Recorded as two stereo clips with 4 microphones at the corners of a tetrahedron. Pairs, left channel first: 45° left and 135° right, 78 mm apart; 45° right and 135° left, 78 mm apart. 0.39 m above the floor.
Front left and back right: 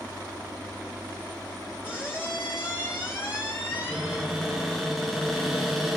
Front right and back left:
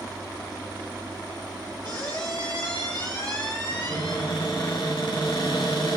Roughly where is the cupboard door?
Ahead right.